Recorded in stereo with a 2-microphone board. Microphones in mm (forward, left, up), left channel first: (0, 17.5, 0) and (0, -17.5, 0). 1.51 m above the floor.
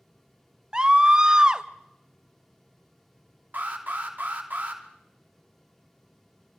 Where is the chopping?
No chopping in this recording.